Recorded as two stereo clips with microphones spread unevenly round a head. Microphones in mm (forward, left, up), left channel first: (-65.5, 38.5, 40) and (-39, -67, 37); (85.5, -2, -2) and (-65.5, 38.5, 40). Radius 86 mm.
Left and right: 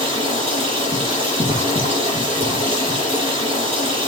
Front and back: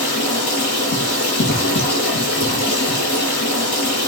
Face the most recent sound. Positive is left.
turn(degrees=0)